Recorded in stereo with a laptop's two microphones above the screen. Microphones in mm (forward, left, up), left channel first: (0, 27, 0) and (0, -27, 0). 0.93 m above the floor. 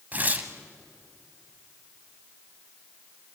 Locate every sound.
0.1 s tearing paper: 30° right (ahead or behind), 1.3 m